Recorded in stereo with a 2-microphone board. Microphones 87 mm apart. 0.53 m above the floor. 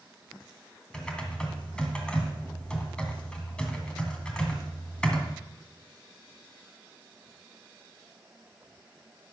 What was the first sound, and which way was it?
Typing on a keyboard, 10° left (ahead or behind).